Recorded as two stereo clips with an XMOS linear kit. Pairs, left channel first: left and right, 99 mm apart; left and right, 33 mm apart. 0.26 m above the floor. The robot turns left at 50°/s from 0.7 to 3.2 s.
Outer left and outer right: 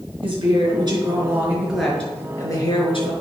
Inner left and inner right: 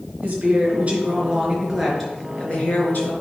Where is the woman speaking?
125° right, 4.5 m; by 3.1 s 115° left, 4.5 m.